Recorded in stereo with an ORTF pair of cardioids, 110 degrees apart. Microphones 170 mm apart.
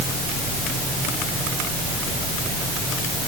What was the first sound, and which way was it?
Only background noise.